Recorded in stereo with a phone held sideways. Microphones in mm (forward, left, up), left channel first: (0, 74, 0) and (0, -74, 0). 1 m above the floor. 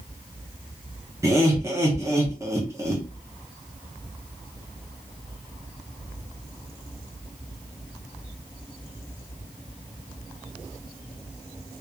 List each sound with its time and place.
1.2 s laughter: 20° right (ahead or behind), 0.6 m